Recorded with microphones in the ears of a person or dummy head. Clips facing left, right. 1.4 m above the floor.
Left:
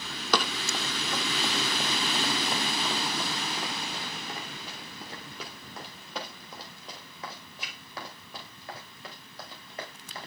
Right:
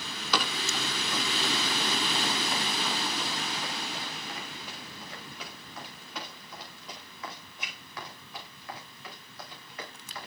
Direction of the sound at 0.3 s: 45° left (ahead or behind).